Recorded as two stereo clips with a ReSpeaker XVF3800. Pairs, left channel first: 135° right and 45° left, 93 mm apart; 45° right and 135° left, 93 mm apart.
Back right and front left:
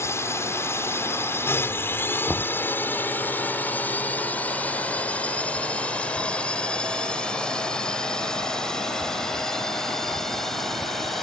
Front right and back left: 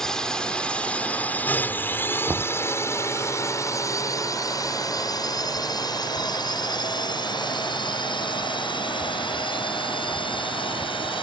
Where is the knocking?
155° left.